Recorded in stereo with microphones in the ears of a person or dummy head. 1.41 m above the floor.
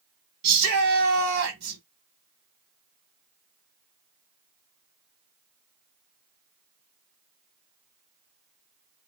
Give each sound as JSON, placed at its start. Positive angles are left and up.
{"t": 0.4, "sound": "a shout", "side_deg": -75, "distance_m": 1.1}